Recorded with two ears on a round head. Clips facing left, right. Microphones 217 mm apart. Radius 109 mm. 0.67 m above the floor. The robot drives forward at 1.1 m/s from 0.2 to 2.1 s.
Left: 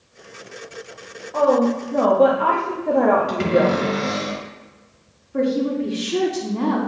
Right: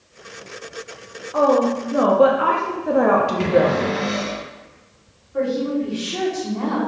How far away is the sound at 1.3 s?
About 1.4 m.